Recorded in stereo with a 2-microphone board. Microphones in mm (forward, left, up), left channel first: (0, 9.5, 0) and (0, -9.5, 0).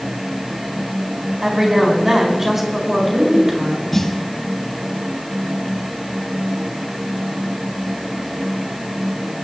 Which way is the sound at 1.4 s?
30° right (ahead or behind).